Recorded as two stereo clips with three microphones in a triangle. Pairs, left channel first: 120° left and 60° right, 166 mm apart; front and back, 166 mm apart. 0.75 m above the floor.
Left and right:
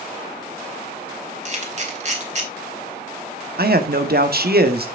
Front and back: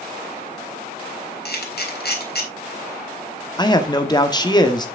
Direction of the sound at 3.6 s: 65° right.